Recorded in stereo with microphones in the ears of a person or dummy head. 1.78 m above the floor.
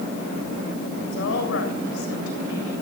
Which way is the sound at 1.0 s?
80° left.